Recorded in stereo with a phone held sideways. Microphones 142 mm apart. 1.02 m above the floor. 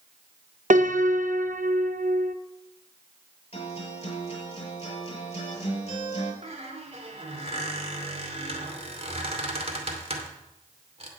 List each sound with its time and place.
0.7 s a piano: 65° right (ahead or behind), 0.7 m
3.5 s a guitar: 50° left (ahead or behind), 6 m
6.4 s a squeak: 45° right (ahead or behind), 2.5 m